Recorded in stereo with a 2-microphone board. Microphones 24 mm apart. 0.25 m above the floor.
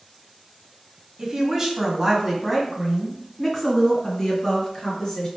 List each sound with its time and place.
1.2 s a woman speaking: 30° right (ahead or behind), 1.3 m; by 5.3 s 15° left (ahead or behind), 3 m